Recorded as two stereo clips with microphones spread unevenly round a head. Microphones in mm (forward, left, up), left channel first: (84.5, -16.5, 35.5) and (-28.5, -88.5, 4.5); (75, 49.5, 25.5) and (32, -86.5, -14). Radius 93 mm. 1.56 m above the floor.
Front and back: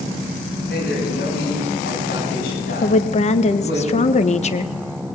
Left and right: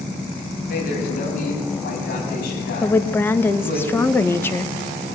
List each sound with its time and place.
0.7 s a man speaking: 70° left, 8.5 m; by 3.8 s 75° left, 11 m
2.8 s a woman speaking: straight ahead, 1.7 m